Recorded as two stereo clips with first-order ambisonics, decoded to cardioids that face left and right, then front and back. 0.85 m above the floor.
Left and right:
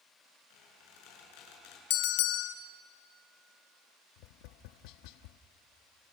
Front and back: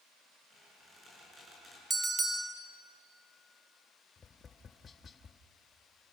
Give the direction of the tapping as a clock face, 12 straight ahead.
10 o'clock.